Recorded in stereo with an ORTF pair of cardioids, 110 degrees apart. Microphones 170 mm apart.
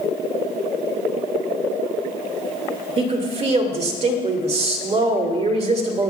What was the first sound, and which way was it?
A woman speaking, 40° right.